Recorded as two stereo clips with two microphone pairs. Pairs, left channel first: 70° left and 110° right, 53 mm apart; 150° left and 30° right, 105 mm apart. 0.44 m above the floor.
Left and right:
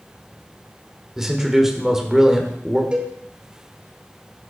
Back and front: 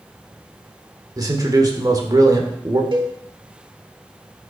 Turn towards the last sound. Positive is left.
turn(degrees=-45)